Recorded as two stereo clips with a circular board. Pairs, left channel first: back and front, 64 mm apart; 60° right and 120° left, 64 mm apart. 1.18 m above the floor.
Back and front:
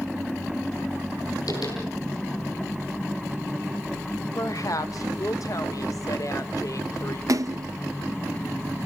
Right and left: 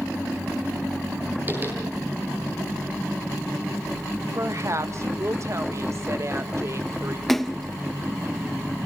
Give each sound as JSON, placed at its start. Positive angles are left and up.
{"t": 1.5, "sound": "tapping", "azimuth_deg": 180, "distance_m": 10.0}
{"t": 4.3, "sound": "a woman speaking", "azimuth_deg": 160, "distance_m": 1.6}
{"t": 7.3, "sound": "a splash", "azimuth_deg": 25, "distance_m": 0.7}